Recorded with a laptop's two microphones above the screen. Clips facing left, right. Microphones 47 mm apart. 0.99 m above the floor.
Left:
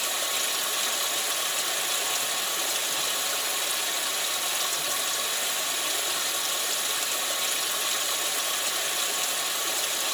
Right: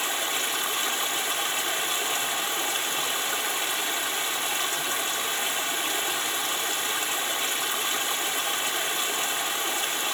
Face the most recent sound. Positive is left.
turn(degrees=-35)  # may be behind; listen again after turning